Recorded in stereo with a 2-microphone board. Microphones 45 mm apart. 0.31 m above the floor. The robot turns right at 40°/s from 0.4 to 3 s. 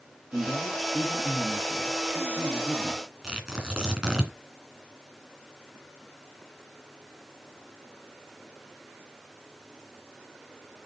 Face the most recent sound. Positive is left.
turn(degrees=-15)  # may be behind; listen again after turning